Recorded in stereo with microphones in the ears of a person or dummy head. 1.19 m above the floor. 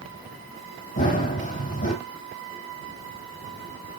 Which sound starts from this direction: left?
Running footsteps, at 1.0 s.